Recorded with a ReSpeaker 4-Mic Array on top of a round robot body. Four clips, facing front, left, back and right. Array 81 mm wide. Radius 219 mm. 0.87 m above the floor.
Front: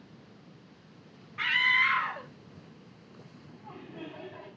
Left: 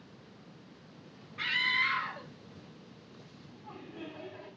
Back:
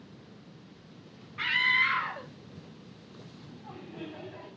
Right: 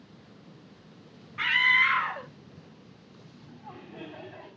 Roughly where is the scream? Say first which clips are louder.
Right 8 dB, front 1 dB; right.